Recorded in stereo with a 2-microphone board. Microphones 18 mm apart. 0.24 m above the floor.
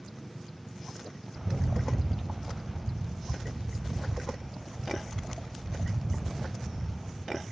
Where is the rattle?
25° right (ahead or behind), 0.7 m.